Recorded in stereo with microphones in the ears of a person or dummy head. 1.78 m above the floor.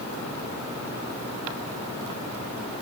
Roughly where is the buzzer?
I don't hear a buzzer.